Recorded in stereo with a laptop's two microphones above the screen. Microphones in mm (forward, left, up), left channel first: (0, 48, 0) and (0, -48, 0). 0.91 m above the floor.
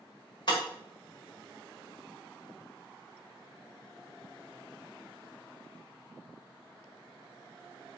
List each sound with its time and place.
0.5 s breaking glass: 50° left (ahead or behind), 1.7 m